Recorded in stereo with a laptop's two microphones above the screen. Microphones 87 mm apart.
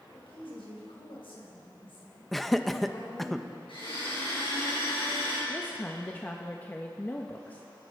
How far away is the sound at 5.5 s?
About 1.2 m.